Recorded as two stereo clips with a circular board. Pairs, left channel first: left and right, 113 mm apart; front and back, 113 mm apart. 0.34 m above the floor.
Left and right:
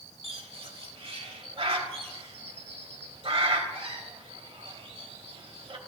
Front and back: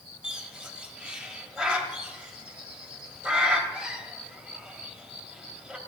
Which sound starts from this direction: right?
A bird, at 0.2 s.